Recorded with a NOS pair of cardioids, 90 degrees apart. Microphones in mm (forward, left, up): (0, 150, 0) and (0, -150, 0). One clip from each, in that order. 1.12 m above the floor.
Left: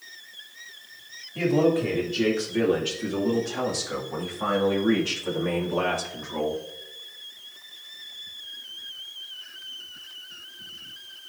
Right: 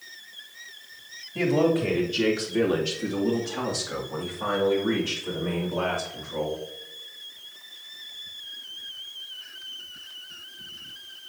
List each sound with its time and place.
1.4 s a man speaking: 25° right, 3 m; by 6.6 s 45° left, 3 m